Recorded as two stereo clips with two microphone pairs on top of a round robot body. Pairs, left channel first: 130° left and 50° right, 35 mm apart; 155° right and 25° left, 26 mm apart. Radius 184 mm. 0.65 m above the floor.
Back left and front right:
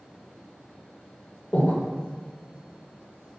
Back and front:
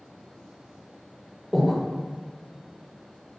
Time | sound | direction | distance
1.5 | breathing | 110° left | 1.0 m